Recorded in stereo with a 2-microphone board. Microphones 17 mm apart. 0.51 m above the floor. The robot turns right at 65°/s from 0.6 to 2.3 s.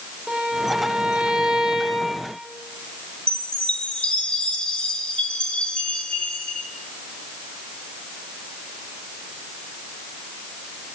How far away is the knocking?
I don't hear knocking.